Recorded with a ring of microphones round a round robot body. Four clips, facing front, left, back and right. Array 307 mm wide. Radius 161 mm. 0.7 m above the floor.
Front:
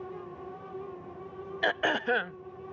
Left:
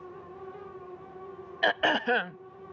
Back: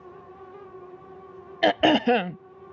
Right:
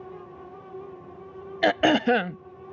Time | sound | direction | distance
1.6 | throat clearing | 140° right | ?